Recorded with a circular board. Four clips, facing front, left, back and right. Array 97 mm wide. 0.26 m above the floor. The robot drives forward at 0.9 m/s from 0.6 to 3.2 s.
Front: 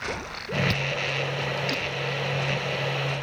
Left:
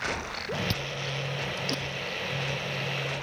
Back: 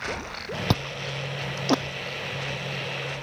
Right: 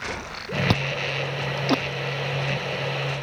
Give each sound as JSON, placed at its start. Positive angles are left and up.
{"t": 0.7, "sound": "chewing", "azimuth_deg": -125}